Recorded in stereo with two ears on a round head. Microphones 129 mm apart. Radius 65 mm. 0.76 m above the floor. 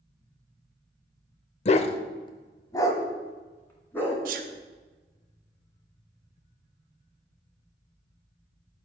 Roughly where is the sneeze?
Right.